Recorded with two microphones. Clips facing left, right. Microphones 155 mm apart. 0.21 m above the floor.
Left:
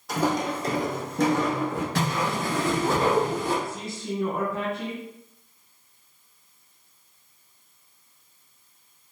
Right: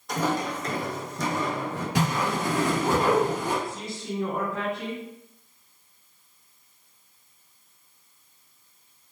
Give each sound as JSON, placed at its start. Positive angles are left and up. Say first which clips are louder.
{"t": 0.1, "sound": "footsteps", "louder": "left 2 dB", "side_deg": 5, "distance_m": 0.6}
{"t": 1.9, "sound": "a whoosh", "louder": "right 4 dB", "side_deg": -15, "distance_m": 0.9}
{"t": 3.6, "sound": "a man speaking", "louder": "left 1 dB", "side_deg": 5, "distance_m": 1.0}